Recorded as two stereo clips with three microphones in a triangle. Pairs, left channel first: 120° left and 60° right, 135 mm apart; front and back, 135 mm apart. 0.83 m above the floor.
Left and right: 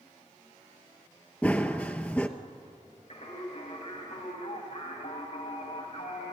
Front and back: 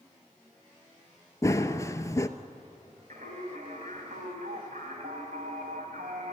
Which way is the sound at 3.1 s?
160° left.